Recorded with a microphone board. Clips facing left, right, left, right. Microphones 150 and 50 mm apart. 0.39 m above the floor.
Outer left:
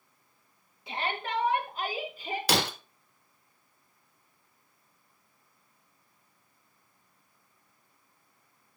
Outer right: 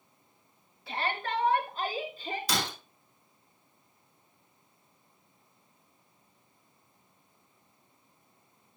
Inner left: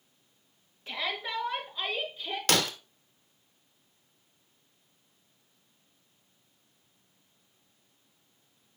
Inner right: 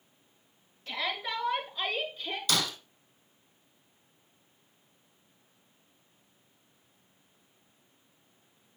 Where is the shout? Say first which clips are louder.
Even, even; 20° left (ahead or behind), 4.5 m; by 2.4 s 10° left (ahead or behind), 5.5 m.